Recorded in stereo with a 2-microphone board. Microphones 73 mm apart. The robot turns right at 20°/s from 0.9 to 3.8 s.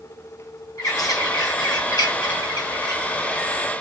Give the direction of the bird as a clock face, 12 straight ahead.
10 o'clock.